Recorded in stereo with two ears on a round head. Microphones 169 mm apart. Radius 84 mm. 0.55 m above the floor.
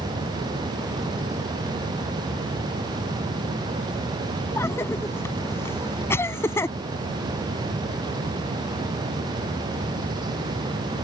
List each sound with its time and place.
4.6 s a cough: 15° left (ahead or behind)